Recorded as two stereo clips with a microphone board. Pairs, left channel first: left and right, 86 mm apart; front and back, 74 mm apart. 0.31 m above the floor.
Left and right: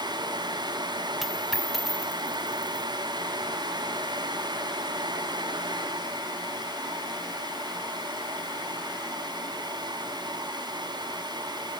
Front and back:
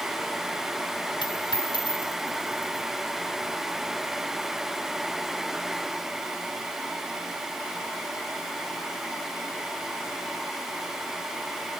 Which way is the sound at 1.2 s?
Straight ahead.